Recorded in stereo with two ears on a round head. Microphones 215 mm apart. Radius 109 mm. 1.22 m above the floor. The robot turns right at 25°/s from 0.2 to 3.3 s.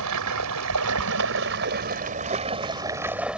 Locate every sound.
0.0 s running water: 80° right; by 3.4 s 5° right